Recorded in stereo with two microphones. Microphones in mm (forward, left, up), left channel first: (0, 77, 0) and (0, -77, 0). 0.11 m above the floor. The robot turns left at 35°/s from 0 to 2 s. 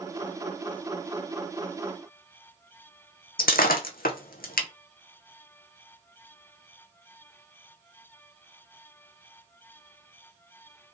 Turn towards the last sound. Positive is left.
turn(degrees=85)